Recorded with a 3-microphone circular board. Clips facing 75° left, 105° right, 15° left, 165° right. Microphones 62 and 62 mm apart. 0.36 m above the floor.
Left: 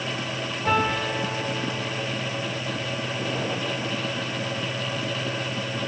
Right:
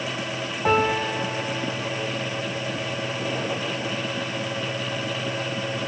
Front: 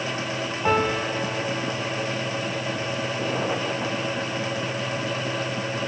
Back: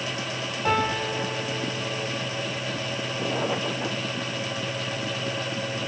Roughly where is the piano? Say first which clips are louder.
Right 2 dB, front 2 dB; ahead right.